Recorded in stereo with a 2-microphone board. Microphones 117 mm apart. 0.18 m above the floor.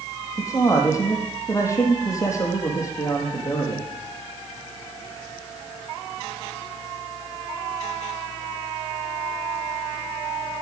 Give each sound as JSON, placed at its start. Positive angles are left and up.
{"t": 0.4, "sound": "a man speaking", "side_deg": 25, "distance_m": 5.0}